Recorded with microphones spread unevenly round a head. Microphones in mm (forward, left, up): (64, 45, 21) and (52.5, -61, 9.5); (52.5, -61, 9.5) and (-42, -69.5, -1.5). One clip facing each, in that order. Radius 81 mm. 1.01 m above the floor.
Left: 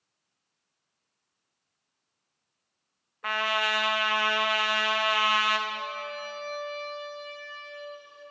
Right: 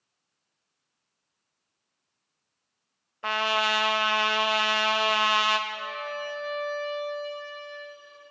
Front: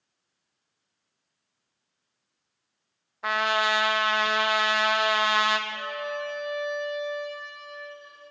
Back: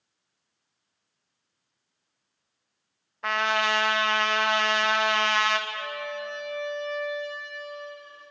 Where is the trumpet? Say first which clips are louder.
Right 2 dB, even; 85° right, 0.6 m.